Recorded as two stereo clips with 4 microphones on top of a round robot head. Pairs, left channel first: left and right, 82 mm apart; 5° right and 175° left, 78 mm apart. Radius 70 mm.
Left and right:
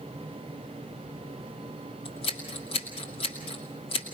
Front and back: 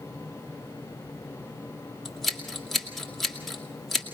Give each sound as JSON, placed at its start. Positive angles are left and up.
{"t": 2.0, "sound": "scissors", "azimuth_deg": 85, "distance_m": 2.5}